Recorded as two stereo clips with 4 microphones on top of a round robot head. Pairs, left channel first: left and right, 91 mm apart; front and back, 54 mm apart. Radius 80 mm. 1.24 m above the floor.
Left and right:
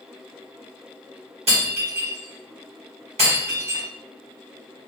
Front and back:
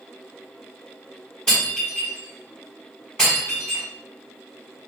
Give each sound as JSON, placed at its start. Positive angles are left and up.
{"t": 1.5, "sound": "breaking glass", "azimuth_deg": -80, "distance_m": 1.8}